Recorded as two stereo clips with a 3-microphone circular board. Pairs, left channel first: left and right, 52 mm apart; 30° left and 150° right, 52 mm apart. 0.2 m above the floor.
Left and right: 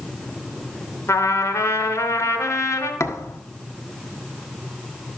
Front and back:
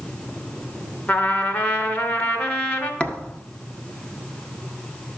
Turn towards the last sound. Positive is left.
turn(degrees=95)